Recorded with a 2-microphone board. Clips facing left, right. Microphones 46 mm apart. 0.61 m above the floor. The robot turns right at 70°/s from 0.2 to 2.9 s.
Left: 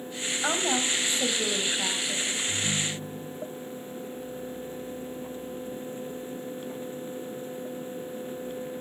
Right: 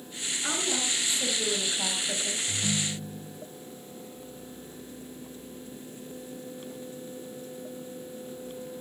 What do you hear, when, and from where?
0.4 s a woman speaking: 90° left, 4 m; by 2.4 s 130° right, 4 m
2.5 s a ringtone: 100° right, 3 m; by 3.4 s 70° right, 3 m